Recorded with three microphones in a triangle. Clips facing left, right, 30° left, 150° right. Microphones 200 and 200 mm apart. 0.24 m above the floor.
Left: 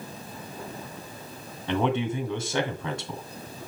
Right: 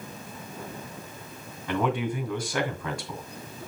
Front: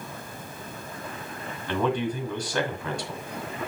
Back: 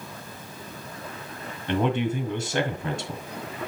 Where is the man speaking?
150° left, 2 m.